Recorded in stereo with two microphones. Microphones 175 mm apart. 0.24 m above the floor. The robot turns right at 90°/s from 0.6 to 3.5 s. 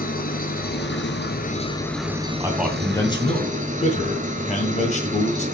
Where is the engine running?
55° left, 1.3 m; by 5.6 s 45° right, 1.3 m.